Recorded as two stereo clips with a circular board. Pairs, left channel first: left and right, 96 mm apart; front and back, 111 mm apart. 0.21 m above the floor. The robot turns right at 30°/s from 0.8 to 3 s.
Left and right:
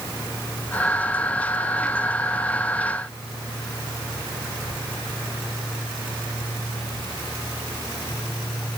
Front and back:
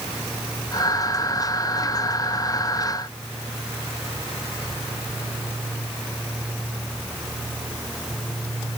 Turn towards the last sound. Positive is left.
No sound to turn to.